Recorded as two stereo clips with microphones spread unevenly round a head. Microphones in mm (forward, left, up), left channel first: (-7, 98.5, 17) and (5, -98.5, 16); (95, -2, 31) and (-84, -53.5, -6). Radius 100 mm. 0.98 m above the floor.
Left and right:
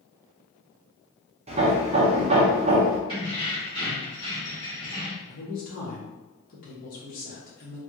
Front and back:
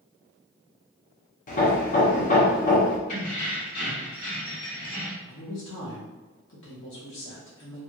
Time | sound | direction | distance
1.5 | hammering | 30° right | 0.8 m
3.1 | keys jangling | 25° left | 1.9 m
5.2 | a man speaking | 50° left | 1.3 m